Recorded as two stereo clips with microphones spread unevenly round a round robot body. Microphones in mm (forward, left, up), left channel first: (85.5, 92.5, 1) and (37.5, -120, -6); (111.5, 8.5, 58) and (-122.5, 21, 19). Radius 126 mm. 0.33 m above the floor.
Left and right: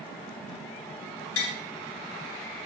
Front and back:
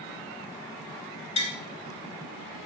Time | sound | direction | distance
1.4 | tapping | 65° left | 1.9 m